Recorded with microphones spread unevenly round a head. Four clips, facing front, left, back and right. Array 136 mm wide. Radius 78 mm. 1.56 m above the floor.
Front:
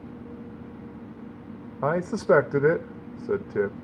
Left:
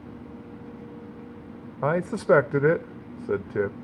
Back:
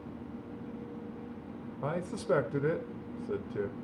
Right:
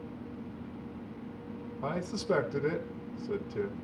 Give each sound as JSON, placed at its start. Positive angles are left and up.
{"t": 1.8, "sound": "a man speaking", "azimuth_deg": 45, "distance_m": 0.7}